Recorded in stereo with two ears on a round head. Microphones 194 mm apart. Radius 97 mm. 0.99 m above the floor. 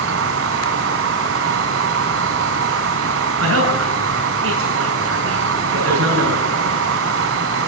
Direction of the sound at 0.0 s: 65° right (ahead or behind).